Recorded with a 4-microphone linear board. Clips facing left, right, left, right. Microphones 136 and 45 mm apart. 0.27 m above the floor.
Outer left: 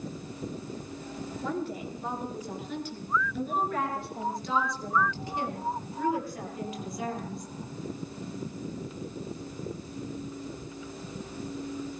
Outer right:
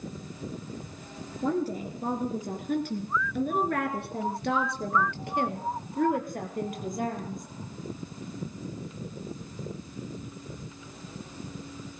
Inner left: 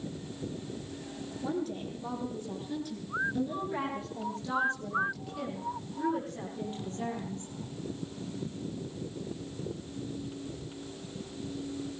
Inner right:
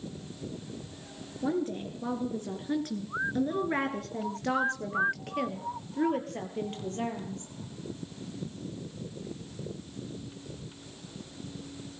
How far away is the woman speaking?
About 4 m.